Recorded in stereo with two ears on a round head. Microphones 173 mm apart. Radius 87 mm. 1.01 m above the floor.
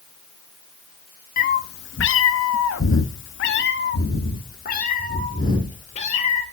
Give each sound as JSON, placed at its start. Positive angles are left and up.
{"t": 1.4, "sound": "a cat meowing", "side_deg": 45, "distance_m": 0.8}